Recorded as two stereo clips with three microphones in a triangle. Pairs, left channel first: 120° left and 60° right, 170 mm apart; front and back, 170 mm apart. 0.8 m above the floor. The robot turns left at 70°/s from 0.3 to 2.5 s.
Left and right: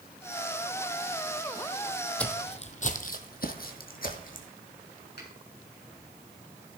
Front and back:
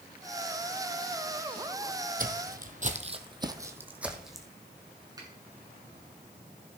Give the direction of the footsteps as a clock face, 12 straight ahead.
5 o'clock.